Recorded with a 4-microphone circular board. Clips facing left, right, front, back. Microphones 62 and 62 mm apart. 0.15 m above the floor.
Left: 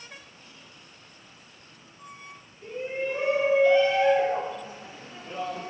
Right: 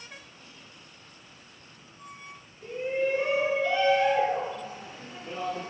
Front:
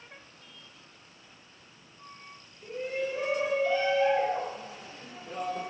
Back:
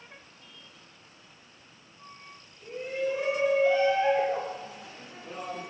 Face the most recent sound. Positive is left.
turn(degrees=170)